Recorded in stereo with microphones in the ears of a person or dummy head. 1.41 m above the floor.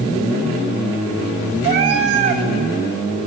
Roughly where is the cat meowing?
Right.